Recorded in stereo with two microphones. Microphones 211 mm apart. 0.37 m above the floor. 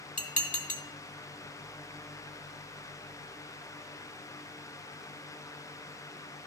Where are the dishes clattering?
35° left (ahead or behind), 1.0 m.